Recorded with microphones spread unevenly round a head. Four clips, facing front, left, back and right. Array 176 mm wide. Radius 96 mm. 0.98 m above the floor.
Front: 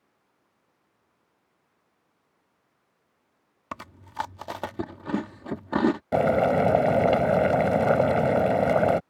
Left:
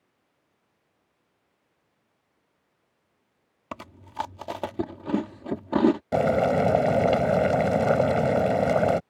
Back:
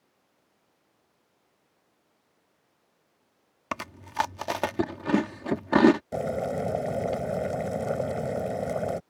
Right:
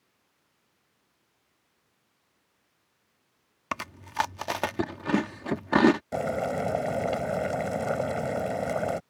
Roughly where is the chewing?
Behind left.